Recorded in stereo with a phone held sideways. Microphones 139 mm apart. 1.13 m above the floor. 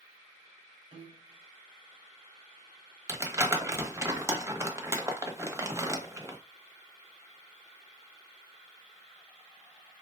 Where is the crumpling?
20° right (ahead or behind), 1.0 m.